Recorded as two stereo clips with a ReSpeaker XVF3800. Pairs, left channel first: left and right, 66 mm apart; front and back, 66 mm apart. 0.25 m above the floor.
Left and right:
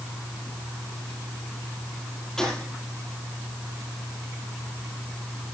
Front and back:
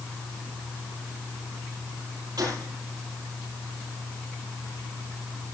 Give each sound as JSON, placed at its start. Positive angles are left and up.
{"t": 2.4, "sound": "a gunshot", "azimuth_deg": 170, "distance_m": 7.5}